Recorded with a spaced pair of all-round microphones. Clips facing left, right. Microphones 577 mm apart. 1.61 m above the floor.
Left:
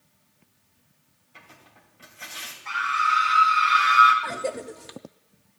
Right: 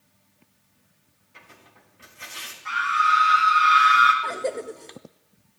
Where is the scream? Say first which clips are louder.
Right 3 dB; 85° right, 5 m.